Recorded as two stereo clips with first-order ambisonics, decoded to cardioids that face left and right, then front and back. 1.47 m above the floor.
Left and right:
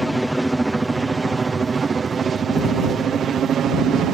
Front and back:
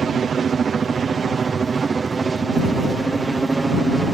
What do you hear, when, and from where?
0.0 s a helicopter: 175° right; by 4.2 s 110° right